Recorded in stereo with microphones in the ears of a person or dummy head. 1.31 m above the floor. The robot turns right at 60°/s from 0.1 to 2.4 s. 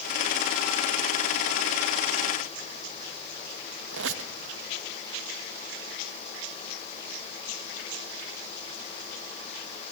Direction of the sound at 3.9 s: 70° right (ahead or behind).